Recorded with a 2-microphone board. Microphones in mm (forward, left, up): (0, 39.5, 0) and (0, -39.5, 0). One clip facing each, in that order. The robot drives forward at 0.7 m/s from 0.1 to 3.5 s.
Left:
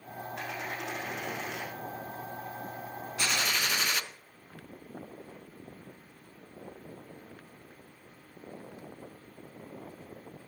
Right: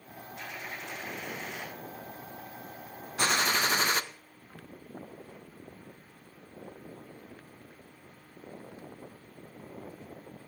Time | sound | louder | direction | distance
0.3 | a dropped coin | left 3 dB | 85° left | 5.5 m
3.2 | a gunshot | right 4 dB | 40° right (ahead or behind) | 0.7 m